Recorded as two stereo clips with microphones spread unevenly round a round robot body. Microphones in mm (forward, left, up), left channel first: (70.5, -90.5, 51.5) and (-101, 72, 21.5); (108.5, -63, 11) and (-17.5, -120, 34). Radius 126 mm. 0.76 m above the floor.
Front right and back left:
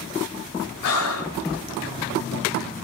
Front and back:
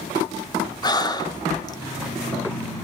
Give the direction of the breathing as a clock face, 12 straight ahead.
1 o'clock.